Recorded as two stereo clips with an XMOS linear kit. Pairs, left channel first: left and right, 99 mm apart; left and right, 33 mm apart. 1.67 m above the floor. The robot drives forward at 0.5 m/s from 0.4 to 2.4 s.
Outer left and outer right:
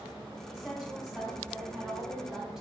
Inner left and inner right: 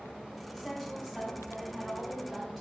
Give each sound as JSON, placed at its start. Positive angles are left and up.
{"t": 0.5, "sound": "a woman speaking", "side_deg": -5, "distance_m": 3.0}